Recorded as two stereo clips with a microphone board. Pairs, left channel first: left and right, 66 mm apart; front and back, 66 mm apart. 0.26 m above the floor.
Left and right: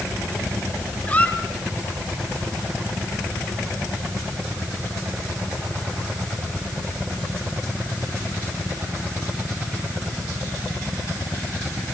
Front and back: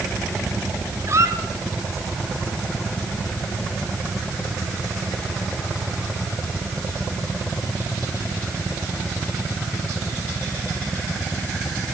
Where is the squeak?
155° left, 1.5 m.